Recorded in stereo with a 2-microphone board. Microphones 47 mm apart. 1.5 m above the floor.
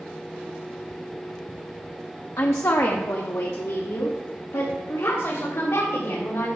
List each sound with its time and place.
2.4 s a woman speaking: 75° left (ahead or behind), 0.7 m; by 6.5 s 90° left, 3 m